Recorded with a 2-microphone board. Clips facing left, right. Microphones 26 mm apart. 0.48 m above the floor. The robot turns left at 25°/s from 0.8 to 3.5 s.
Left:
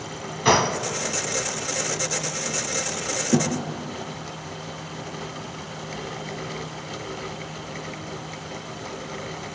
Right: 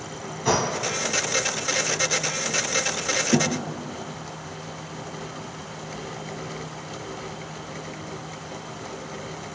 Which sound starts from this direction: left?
A gunshot, at 0.5 s.